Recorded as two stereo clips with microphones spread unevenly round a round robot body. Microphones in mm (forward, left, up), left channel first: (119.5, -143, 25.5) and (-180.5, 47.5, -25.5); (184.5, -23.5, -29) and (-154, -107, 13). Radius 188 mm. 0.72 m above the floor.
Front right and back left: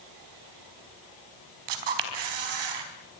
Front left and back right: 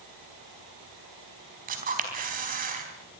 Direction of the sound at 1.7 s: 125° left.